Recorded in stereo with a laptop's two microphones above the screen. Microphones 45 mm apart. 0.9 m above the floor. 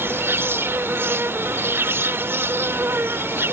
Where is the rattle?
No rattle in this recording.